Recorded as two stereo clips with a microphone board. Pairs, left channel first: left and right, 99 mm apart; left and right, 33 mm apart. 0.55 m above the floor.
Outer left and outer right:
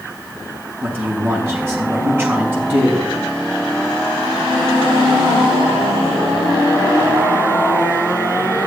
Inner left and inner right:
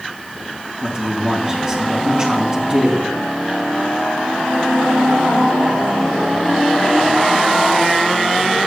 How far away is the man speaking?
About 5 m.